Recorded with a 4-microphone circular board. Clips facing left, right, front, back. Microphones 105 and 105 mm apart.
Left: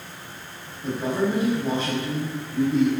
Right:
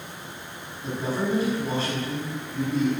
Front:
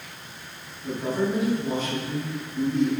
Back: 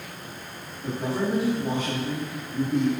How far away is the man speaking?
About 5 m.